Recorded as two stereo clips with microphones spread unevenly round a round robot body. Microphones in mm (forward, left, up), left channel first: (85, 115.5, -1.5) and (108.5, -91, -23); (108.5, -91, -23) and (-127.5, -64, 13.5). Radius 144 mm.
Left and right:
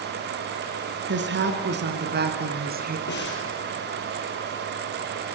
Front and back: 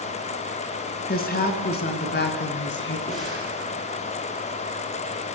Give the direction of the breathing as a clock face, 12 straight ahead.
10 o'clock.